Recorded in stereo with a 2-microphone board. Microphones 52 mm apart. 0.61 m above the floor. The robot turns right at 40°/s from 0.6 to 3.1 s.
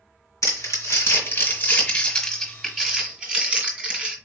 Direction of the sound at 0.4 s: 80° left.